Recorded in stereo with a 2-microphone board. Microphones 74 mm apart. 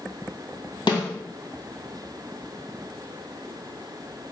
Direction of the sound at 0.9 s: 75° left (ahead or behind).